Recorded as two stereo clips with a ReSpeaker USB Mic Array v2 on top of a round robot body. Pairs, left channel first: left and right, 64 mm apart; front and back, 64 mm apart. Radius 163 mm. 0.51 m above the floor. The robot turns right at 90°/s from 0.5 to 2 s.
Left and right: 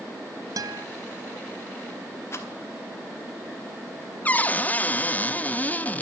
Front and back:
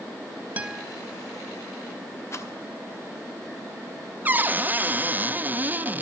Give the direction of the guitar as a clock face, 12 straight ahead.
4 o'clock.